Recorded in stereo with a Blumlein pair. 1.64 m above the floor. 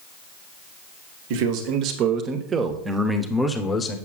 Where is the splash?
I don't hear a splash.